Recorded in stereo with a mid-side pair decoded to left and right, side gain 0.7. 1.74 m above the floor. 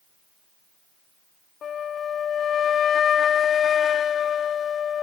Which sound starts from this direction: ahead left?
A flute, at 1.6 s.